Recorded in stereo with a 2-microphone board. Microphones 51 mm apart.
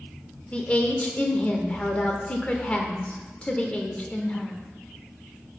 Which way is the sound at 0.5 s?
25° left (ahead or behind).